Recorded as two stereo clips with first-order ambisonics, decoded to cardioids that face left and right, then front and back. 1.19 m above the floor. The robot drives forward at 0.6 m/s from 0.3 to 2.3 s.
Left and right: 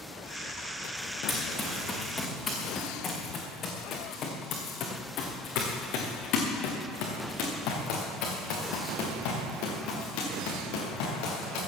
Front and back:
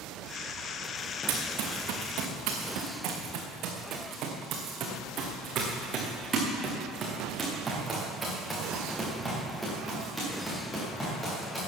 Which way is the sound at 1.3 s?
170° left.